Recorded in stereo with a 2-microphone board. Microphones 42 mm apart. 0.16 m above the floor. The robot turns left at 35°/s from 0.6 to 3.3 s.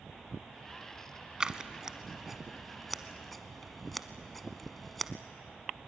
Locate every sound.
1.4 s scissors: 20° right (ahead or behind), 0.8 m; by 5.1 s 5° left (ahead or behind), 0.8 m